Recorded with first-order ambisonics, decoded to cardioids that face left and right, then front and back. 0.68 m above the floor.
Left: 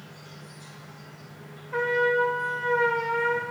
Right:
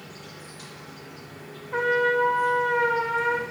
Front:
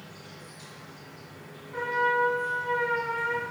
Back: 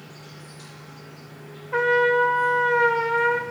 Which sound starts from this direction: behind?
A trumpet, at 1.7 s.